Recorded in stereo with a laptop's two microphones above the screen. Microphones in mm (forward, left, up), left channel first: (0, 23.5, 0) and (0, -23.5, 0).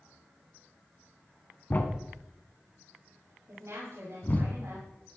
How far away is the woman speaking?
About 4.5 m.